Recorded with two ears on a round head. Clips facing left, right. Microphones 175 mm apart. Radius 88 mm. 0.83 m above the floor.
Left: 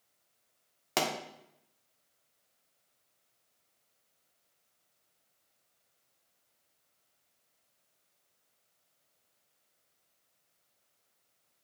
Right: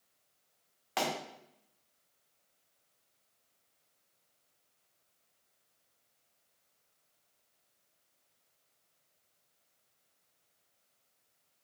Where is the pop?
55° left (ahead or behind), 1.5 m.